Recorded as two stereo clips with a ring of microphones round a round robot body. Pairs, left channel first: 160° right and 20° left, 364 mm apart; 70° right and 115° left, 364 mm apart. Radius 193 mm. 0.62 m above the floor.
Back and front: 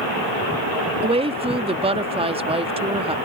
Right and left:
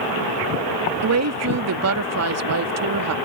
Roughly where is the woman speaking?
Left.